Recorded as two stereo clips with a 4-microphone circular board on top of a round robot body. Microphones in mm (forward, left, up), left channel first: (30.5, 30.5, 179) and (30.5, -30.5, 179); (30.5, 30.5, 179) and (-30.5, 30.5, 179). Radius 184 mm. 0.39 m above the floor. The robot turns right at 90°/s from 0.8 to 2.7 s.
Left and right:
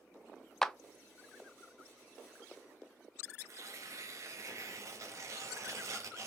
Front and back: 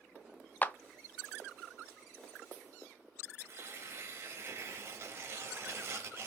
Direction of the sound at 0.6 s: 20° left.